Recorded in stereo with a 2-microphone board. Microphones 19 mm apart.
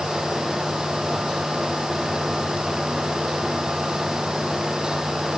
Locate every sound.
Only background noise.